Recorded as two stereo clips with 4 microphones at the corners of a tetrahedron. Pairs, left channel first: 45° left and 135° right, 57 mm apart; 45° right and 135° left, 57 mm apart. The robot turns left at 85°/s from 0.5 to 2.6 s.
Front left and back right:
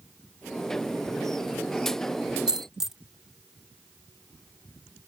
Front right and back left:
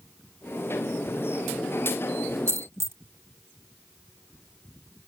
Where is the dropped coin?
155° left; by 3.0 s 145° left.